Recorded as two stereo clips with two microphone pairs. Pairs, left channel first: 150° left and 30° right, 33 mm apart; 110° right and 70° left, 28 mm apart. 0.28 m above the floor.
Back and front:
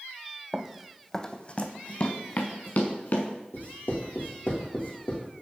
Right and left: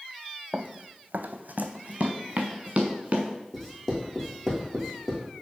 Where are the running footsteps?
25° left, 0.6 m; by 3.3 s 125° left, 2.0 m.